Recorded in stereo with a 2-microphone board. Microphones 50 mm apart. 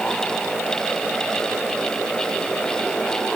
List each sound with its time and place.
Only background noise.